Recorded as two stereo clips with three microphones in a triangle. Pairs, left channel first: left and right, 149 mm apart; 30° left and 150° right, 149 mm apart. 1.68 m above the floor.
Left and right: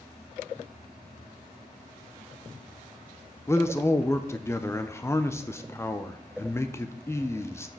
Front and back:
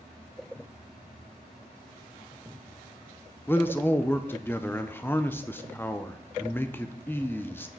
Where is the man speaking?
70° left, 0.6 m.